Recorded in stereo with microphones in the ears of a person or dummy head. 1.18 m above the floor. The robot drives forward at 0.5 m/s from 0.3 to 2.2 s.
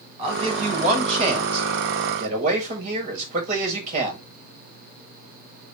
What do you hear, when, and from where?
0.2 s a man speaking: 35° right (ahead or behind), 5 m; by 4.2 s 40° right (ahead or behind), 4.5 m